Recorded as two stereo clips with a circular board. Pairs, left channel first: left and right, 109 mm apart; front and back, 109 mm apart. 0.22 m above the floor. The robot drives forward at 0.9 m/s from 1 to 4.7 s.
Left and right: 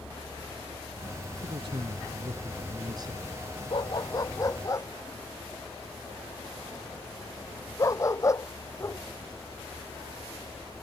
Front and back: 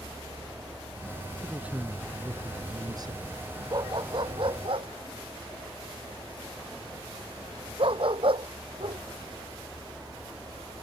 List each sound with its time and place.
1.4 s a man speaking: 100° right; by 3.4 s 140° right
3.7 s a dog barking: 130° left; by 9.0 s 150° left